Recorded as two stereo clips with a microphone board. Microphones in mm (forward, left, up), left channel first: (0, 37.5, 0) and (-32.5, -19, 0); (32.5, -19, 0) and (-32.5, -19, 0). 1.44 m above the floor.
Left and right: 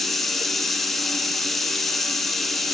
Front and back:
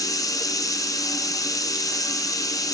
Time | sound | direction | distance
0.0 | running water | 30° right | 0.7 m